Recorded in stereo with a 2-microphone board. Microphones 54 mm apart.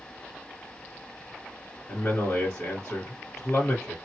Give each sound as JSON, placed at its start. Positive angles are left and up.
{"t": 1.9, "sound": "a man speaking", "side_deg": 40, "distance_m": 1.9}